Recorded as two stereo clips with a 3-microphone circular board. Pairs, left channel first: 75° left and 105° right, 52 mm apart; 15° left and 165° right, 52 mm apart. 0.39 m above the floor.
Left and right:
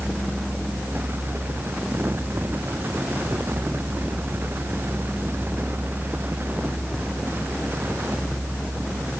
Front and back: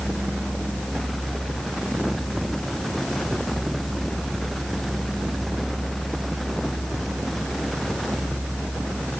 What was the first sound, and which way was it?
Only background noise.